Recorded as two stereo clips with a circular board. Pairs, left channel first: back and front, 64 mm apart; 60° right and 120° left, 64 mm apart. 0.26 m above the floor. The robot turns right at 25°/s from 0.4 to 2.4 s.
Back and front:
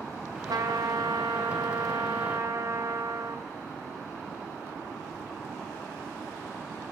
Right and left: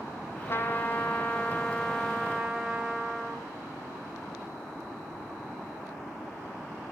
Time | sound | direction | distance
0.5 | a trumpet | 10° right | 2.0 m